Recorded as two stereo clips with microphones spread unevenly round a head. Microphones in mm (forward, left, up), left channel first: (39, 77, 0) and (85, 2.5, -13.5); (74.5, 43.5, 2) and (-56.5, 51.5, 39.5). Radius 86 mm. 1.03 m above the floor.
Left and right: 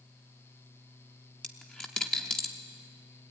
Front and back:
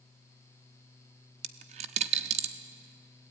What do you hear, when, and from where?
1.4 s a dropped coin: 160° right, 0.7 m